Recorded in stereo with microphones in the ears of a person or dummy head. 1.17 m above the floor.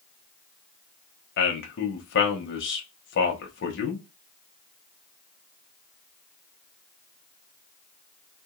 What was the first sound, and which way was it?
A man speaking, 55° left (ahead or behind).